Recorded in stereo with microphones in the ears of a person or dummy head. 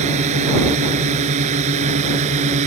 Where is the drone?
40° right (ahead or behind).